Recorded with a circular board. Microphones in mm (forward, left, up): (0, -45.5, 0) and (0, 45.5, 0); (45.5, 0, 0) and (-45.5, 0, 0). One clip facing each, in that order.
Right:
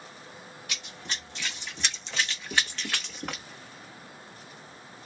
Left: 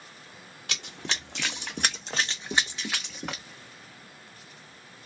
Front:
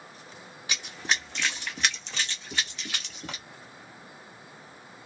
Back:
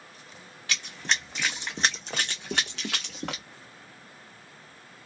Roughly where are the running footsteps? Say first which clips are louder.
Left 5 dB, even; left.